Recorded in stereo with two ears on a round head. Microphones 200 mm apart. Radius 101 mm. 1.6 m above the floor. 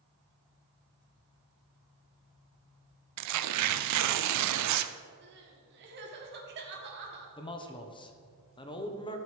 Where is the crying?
45° right (ahead or behind), 1.6 m.